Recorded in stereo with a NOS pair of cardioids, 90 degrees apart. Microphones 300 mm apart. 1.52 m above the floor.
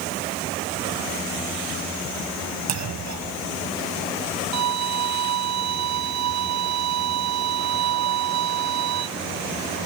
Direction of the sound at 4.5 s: 70° right.